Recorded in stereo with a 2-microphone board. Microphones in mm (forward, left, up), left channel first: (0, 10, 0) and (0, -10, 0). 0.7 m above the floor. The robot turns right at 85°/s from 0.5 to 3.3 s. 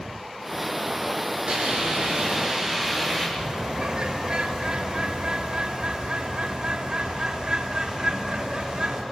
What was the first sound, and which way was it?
A hiss, 115° right.